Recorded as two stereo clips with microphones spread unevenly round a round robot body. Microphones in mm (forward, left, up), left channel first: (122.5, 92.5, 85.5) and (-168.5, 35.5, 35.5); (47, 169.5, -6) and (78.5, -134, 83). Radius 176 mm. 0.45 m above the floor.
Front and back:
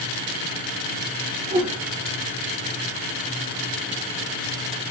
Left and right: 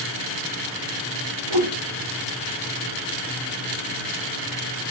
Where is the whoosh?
90° right, 0.7 m.